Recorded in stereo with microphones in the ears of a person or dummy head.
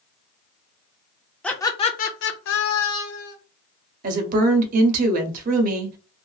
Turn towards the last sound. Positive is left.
turn(degrees=-45)  # may be behind; listen again after turning